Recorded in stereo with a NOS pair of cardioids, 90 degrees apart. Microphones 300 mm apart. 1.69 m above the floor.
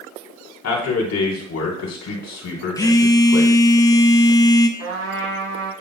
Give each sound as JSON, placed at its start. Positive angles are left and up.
{"t": 0.6, "sound": "a man speaking", "azimuth_deg": 55, "distance_m": 2.5}
{"t": 2.8, "sound": "a phone buzzing", "azimuth_deg": 10, "distance_m": 0.7}
{"t": 4.8, "sound": "a trumpet", "azimuth_deg": -55, "distance_m": 3.0}